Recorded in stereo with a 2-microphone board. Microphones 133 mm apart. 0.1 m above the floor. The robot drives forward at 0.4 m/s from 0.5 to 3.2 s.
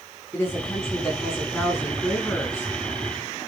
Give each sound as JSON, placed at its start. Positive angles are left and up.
{"t": 0.3, "sound": "a woman speaking", "side_deg": 15, "distance_m": 5.5}